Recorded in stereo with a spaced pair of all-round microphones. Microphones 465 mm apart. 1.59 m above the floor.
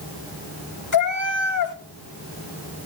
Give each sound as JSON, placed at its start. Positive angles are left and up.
{"t": 0.9, "sound": "a cat meowing", "side_deg": 40, "distance_m": 1.4}